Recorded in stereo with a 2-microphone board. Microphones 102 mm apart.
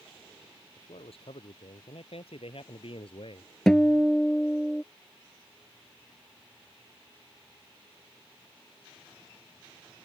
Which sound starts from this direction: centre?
A guitar, at 3.7 s.